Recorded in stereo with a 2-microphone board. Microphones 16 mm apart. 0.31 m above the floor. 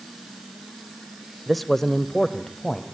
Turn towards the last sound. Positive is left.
turn(degrees=45)  # may be behind; listen again after turning